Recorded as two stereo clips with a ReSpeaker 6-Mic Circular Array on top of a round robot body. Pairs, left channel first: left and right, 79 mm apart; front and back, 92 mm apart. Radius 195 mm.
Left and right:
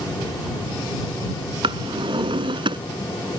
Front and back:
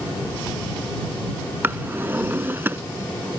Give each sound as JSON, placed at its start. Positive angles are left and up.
{"t": 1.6, "sound": "a drawer", "azimuth_deg": -110}